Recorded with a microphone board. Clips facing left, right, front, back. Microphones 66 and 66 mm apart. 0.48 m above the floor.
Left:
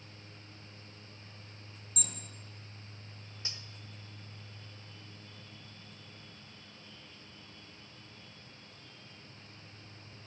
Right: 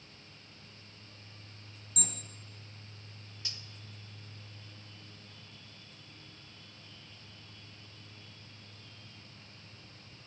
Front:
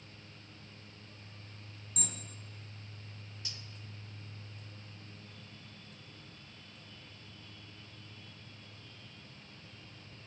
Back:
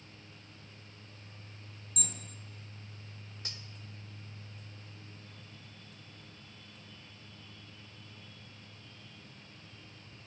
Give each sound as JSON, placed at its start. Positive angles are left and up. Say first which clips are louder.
{"t": 2.0, "sound": "an alarm", "louder": "right 5 dB, front 1 dB", "azimuth_deg": -50, "distance_m": 2.5}
{"t": 3.5, "sound": "cutlery clinking", "louder": "left 1 dB, back 2 dB", "azimuth_deg": 145, "distance_m": 0.6}